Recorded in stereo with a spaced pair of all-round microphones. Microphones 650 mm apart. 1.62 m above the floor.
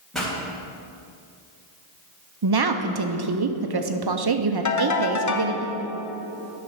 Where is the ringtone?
30° left (ahead or behind), 0.6 m.